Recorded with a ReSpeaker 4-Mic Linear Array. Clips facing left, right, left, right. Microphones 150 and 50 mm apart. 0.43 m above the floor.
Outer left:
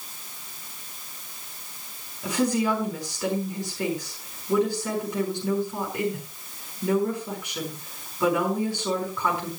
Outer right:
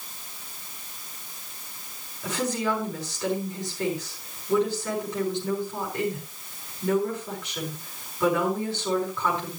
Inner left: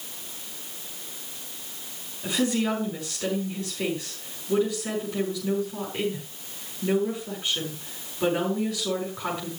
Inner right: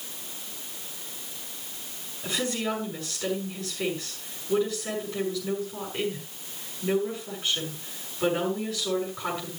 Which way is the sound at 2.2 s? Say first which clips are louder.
Outer left 4 dB, inner left 4 dB; 15° left (ahead or behind).